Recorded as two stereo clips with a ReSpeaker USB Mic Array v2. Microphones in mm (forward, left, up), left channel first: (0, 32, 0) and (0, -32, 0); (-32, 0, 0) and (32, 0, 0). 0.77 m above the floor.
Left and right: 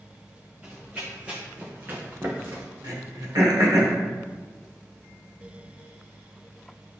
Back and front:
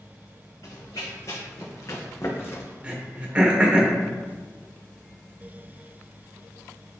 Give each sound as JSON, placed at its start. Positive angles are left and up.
{"t": 0.6, "sound": "running footsteps", "azimuth_deg": -170, "distance_m": 2.5}
{"t": 2.8, "sound": "throat clearing", "azimuth_deg": -70, "distance_m": 1.4}